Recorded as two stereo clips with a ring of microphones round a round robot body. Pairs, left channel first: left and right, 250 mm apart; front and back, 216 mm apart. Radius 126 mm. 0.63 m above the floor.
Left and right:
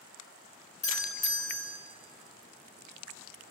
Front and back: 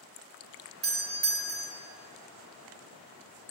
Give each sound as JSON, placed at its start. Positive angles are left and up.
{"t": 0.8, "sound": "a doorbell", "azimuth_deg": 150, "distance_m": 1.7}